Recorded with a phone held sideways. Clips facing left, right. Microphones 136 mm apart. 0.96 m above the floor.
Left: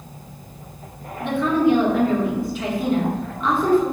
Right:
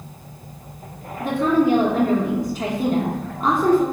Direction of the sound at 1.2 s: 40° right (ahead or behind).